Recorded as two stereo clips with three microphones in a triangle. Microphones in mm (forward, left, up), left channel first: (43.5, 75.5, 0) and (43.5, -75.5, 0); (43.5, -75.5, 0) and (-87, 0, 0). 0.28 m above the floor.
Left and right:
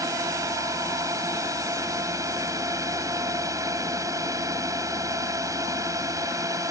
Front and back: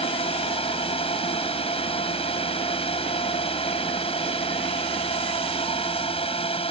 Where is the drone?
35° right.